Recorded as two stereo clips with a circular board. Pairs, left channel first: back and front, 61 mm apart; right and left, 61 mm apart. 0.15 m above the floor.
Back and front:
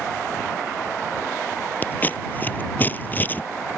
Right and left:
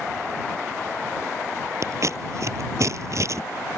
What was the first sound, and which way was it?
Scissors, 120° left.